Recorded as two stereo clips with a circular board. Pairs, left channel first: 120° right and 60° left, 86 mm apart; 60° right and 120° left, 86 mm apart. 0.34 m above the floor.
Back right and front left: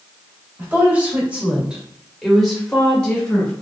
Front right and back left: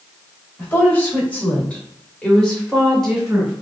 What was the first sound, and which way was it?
A woman speaking, straight ahead.